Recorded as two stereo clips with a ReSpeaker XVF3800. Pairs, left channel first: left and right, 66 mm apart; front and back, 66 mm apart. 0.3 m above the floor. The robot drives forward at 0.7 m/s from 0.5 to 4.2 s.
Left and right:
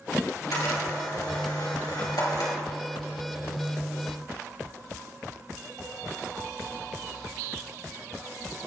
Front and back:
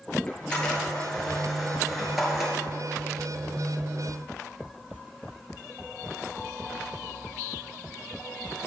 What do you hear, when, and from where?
0.3 s a camera shutter: 75° left, 3.5 m; by 2.5 s 100° left, 3.5 m